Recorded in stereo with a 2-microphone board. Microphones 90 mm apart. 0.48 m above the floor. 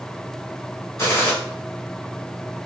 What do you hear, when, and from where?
1.0 s a gunshot: 30° left (ahead or behind), 1.5 m